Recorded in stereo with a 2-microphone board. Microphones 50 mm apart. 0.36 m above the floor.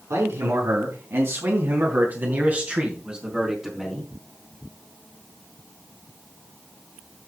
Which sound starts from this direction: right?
A man speaking, at 0.1 s.